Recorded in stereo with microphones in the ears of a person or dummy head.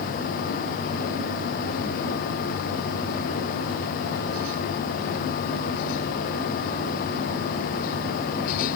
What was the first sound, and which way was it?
Only background noise.